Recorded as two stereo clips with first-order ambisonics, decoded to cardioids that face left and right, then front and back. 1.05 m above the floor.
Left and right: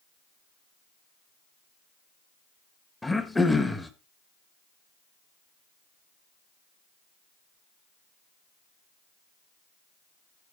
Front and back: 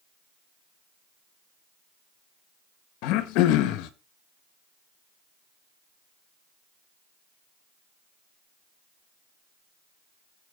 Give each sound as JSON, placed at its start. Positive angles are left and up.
{"t": 3.0, "sound": "throat clearing", "azimuth_deg": 5, "distance_m": 1.3}